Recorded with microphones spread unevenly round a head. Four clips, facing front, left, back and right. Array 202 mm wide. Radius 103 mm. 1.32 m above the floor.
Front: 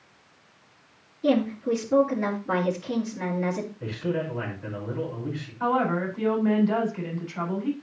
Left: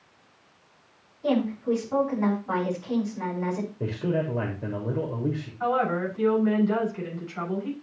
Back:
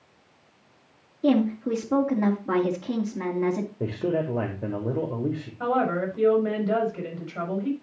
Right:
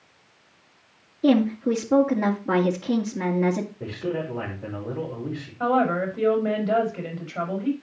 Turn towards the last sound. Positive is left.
turn(degrees=-125)